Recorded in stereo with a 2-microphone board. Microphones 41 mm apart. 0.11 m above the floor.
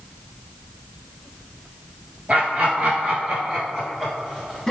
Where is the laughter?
30° right (ahead or behind), 1.9 m; by 4.7 s 10° left (ahead or behind), 1.4 m.